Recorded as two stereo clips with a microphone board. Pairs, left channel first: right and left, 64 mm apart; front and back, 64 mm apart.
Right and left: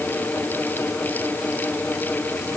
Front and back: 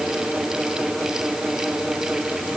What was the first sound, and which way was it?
Only background noise.